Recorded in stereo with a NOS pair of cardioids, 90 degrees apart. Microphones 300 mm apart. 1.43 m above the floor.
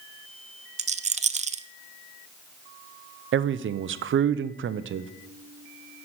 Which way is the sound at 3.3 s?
45° right.